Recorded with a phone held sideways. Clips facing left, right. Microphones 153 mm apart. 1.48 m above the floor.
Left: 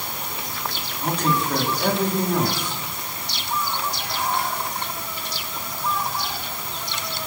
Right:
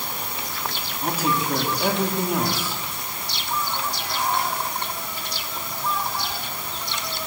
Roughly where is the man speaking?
Centre.